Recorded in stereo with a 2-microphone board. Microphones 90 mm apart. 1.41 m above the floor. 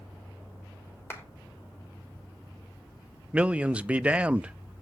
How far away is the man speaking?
About 0.5 m.